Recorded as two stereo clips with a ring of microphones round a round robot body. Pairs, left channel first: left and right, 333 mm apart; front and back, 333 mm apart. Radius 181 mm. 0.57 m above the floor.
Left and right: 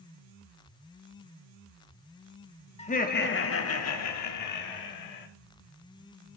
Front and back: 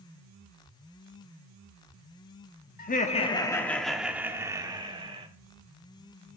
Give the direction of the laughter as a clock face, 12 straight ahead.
11 o'clock.